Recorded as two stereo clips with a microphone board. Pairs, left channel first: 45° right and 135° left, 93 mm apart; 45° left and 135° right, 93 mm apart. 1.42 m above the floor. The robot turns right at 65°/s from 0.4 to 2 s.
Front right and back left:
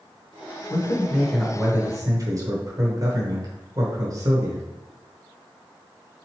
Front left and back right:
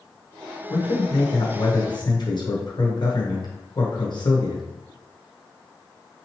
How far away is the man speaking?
About 0.9 m.